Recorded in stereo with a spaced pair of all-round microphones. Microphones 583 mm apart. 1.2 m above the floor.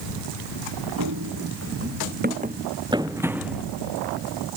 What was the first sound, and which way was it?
Running footsteps, 35° right (ahead or behind).